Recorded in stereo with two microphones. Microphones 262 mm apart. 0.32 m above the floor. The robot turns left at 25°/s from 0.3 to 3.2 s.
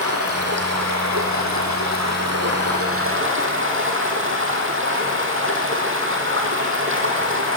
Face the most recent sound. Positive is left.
turn(degrees=-130)